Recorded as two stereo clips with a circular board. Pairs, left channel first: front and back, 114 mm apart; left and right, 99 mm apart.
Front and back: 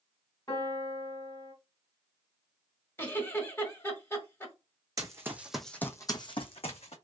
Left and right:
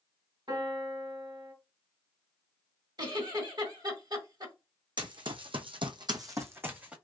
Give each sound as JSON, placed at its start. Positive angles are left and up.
{"t": 0.5, "sound": "a piano", "azimuth_deg": -60, "distance_m": 2.0}
{"t": 3.0, "sound": "a giggle", "azimuth_deg": -65, "distance_m": 1.9}
{"t": 5.0, "sound": "running footsteps", "azimuth_deg": -125, "distance_m": 1.1}